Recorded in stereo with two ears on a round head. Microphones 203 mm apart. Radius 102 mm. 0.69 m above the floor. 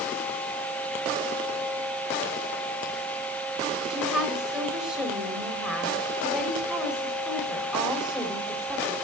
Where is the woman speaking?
5° right (ahead or behind), 4 m.